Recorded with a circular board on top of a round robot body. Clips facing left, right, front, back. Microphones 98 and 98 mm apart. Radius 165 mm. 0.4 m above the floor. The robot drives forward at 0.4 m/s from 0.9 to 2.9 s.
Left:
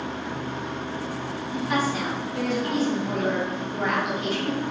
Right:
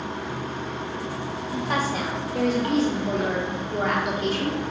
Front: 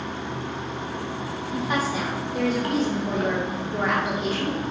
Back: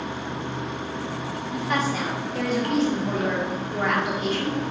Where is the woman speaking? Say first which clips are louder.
Left 1 dB, even; 55° right, 2.5 m; by 4.6 s 70° right, 2 m.